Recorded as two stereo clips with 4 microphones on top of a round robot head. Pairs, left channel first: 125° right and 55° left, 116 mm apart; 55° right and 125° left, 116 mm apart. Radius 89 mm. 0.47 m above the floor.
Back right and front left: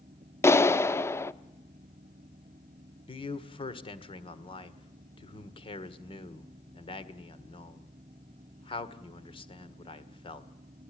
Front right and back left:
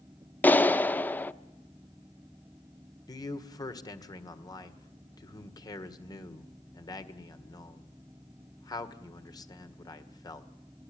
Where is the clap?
105° right, 0.8 m.